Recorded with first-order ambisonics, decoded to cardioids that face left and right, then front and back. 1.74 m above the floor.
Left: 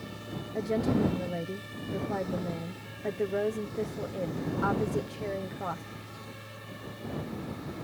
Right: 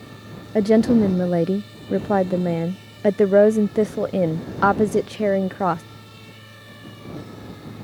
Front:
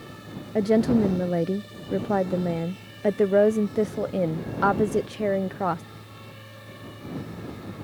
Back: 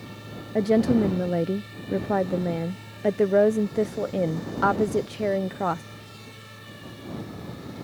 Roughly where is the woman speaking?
Right.